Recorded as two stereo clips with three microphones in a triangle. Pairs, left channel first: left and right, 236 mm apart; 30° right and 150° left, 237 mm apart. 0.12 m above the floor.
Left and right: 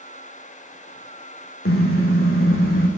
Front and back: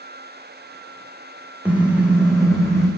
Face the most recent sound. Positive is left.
turn(degrees=60)